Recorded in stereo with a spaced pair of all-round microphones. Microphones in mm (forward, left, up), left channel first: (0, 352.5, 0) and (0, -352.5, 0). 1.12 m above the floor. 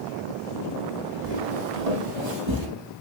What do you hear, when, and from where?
1.2 s footsteps: 60° right (ahead or behind), 3 m; by 2.7 s 25° right (ahead or behind), 1.9 m